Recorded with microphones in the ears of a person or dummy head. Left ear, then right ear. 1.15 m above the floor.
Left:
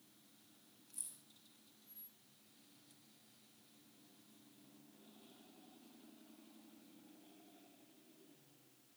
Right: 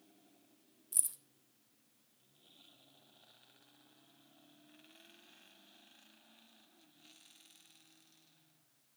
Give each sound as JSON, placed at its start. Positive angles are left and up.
{"t": 0.9, "sound": "keys jangling", "side_deg": -45, "distance_m": 0.5}